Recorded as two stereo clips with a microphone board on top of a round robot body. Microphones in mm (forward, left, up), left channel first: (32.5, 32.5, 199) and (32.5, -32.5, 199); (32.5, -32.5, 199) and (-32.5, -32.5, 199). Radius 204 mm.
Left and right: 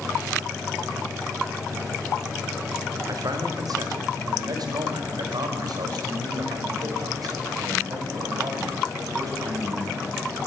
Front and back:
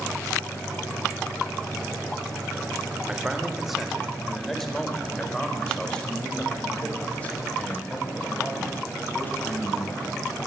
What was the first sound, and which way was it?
A man speaking, 105° right.